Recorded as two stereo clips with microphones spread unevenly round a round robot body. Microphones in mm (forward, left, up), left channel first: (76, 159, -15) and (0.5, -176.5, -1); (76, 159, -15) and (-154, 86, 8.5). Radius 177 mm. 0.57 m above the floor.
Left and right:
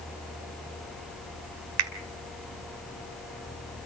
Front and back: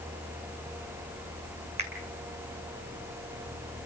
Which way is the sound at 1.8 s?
90° right.